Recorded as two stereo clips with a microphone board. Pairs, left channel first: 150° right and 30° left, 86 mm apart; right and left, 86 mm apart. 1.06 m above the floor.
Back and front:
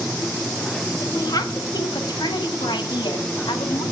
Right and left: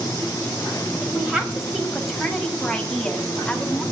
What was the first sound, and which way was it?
A woman speaking, 165° left.